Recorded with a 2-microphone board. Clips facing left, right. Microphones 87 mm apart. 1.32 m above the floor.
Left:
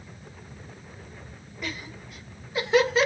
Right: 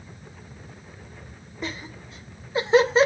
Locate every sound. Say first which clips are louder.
1.6 s laughter: right 2 dB; 30° right (ahead or behind), 0.7 m